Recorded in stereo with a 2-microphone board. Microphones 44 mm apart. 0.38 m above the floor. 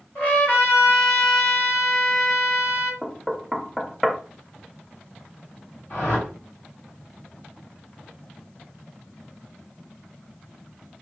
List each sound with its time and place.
0.1 s a trumpet: 55° left (ahead or behind), 2 m
3.0 s knocking: 5° left (ahead or behind), 0.5 m
5.9 s a whoosh: 65° left (ahead or behind), 3 m